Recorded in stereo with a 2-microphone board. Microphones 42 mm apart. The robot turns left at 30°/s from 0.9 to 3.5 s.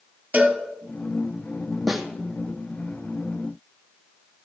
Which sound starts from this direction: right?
A cowbell, at 0.3 s.